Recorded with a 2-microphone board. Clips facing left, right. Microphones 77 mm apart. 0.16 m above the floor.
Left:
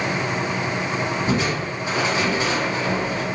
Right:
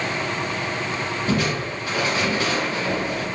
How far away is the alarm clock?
No alarm clock in this recording.